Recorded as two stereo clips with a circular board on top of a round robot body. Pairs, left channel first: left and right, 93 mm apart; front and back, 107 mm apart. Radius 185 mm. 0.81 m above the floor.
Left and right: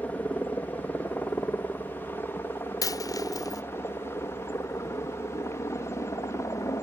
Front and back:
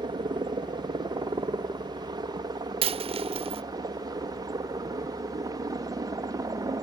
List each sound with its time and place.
0.0 s a helicopter: 155° left; by 6.8 s 140° left
2.8 s a dropped coin: 145° left